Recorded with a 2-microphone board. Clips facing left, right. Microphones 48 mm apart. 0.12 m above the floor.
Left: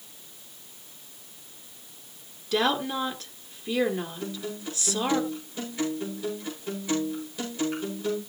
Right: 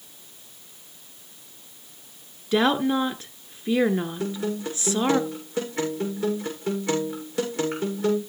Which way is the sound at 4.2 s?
75° right (ahead or behind).